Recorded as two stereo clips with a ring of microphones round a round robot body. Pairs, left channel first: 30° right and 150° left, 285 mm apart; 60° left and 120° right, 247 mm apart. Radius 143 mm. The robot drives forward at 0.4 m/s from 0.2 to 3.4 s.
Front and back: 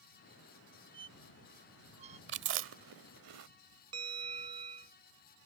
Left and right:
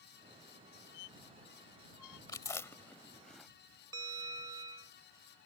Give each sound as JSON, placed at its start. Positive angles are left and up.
{"t": 0.9, "sound": "a squeak", "azimuth_deg": 75}
{"t": 2.3, "sound": "chewing", "azimuth_deg": 130}
{"t": 3.9, "sound": "a bell", "azimuth_deg": -170}